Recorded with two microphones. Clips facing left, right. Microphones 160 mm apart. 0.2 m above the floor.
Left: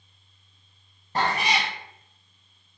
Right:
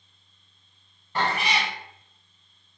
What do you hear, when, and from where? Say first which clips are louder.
1.1 s a cat meowing: left 1 dB; 35° left (ahead or behind), 0.6 m